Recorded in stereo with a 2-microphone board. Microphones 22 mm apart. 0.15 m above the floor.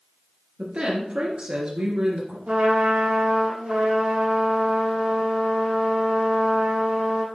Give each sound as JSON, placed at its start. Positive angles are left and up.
{"t": 0.6, "sound": "a woman speaking", "side_deg": -50, "distance_m": 2.0}
{"t": 2.5, "sound": "a trumpet", "side_deg": -75, "distance_m": 3.0}